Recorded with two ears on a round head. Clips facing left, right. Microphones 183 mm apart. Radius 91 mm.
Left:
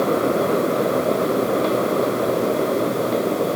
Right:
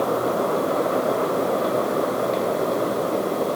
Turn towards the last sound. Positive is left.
No sound to turn to.